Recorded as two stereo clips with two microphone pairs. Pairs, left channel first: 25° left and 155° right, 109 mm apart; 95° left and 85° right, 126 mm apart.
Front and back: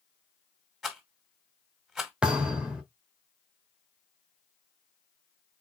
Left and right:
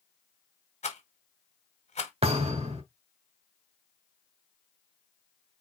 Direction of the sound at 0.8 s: 120° left.